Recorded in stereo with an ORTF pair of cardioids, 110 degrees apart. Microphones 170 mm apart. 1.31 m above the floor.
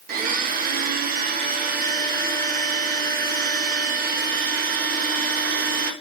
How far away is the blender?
About 1.4 m.